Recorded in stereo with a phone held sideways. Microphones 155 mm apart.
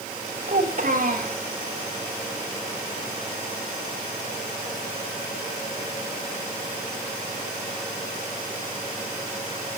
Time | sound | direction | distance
0.5 | a child speaking | 55° right (ahead or behind) | 7 m